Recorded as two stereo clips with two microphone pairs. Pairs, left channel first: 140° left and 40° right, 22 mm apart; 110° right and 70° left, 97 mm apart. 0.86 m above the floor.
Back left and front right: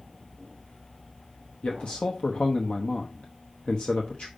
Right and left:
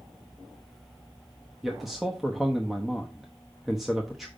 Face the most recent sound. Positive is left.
turn(degrees=155)